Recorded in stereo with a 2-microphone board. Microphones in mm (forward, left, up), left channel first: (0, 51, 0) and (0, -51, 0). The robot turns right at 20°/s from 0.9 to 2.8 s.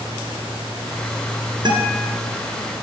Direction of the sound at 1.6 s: 40° right (ahead or behind).